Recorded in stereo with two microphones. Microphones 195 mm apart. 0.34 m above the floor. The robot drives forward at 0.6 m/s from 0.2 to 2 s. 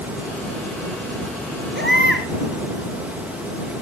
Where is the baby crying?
65° right (ahead or behind), 2.5 m; by 2.3 s 70° right (ahead or behind), 2.5 m.